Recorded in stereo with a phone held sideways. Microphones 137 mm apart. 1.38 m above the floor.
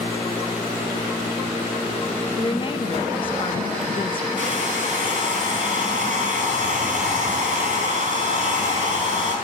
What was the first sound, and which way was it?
A woman speaking, 35° left (ahead or behind).